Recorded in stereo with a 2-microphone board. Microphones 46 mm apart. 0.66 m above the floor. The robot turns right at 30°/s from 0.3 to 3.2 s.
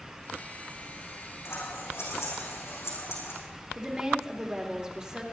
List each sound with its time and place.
1.4 s scissors: 70° left, 6.5 m; by 3.4 s 120° left, 6.5 m
3.8 s a woman speaking: 20° right (ahead or behind), 2.5 m